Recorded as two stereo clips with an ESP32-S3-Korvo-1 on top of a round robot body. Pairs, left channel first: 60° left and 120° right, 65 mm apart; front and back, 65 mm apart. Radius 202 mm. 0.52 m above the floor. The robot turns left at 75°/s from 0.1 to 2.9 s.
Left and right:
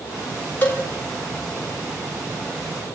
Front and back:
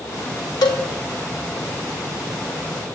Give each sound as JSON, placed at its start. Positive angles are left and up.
{"t": 0.6, "sound": "a cowbell", "azimuth_deg": 0, "distance_m": 3.5}